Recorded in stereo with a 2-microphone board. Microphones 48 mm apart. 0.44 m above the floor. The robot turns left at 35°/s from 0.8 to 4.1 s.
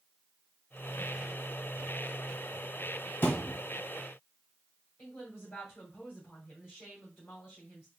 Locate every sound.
3.2 s a thud: 55° left (ahead or behind), 1.4 m; by 3.6 s 40° left (ahead or behind), 1.4 m
5.0 s a woman speaking: 45° left (ahead or behind), 2.5 m